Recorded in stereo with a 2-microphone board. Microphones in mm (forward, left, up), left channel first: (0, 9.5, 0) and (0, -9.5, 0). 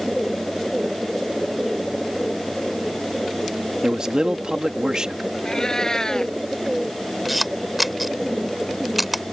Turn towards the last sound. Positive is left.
turn(degrees=-5)  # may be behind; listen again after turning